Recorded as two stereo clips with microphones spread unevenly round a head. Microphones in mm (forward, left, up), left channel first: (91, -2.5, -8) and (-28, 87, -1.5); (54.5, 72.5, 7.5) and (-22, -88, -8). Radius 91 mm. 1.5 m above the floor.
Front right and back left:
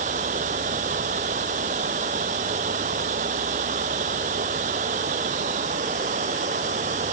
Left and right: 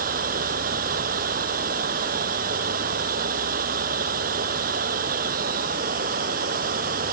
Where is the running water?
165° right.